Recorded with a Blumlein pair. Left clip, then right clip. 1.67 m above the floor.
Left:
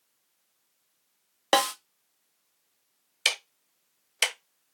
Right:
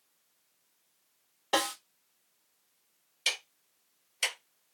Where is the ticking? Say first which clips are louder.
Left 5 dB; 45° left, 0.6 m.